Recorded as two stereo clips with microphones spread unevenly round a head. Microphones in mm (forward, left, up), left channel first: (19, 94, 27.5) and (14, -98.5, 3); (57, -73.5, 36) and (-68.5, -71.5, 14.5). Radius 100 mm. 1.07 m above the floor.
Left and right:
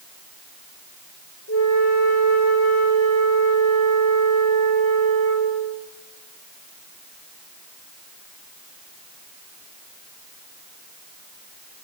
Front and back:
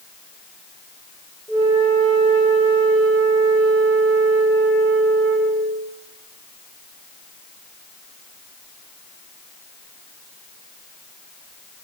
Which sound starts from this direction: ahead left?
A flute, at 1.5 s.